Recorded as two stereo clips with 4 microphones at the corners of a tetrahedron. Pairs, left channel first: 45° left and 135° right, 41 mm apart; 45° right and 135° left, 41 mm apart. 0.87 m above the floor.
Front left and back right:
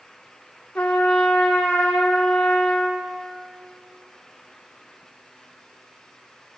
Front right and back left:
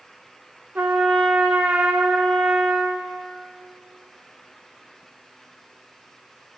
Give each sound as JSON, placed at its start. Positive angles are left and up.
{"t": 0.8, "sound": "a trumpet", "azimuth_deg": 105, "distance_m": 1.4}